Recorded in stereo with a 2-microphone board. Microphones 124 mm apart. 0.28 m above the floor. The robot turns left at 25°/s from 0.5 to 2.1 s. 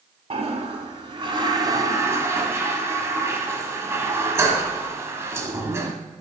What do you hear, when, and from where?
0.3 s a toilet flushing: 115° right, 1.1 m; by 5.9 s 155° right, 1.1 m